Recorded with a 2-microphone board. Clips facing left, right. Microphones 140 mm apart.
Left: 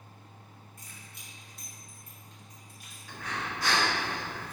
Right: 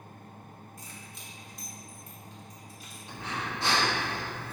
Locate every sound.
0.8 s keys jangling: 60° left (ahead or behind), 2.5 m
3.1 s breathing: 25° right (ahead or behind), 1.5 m